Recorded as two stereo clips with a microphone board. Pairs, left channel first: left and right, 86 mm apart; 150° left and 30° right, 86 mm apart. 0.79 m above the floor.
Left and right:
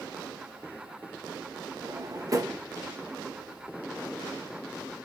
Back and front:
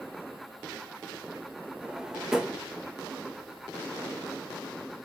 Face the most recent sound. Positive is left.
turn(degrees=-110)